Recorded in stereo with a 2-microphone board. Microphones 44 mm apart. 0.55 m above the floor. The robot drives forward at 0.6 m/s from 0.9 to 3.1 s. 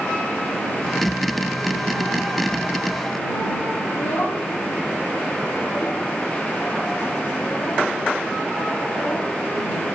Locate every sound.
3.9 s a child speaking: 70° left (ahead or behind), 9.5 m